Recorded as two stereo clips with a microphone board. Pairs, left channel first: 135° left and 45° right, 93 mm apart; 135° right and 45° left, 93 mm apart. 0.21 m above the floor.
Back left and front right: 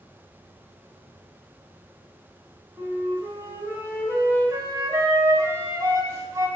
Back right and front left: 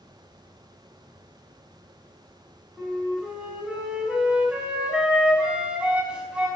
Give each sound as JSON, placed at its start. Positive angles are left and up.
{"t": 2.8, "sound": "a flute", "azimuth_deg": -25, "distance_m": 1.5}